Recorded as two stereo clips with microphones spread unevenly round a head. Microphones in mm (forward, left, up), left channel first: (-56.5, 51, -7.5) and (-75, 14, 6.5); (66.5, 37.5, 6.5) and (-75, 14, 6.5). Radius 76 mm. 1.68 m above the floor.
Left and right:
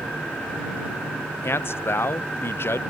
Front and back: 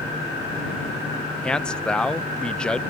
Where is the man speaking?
90° left.